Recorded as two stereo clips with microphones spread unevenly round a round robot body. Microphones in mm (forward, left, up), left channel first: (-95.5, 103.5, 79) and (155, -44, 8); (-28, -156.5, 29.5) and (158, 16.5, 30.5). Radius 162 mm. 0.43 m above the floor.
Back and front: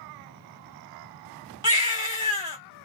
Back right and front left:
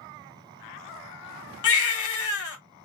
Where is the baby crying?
105° right, 1.5 m.